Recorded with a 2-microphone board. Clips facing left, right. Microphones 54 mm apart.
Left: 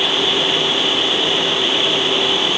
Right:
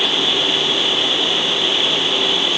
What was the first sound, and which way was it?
Only background noise.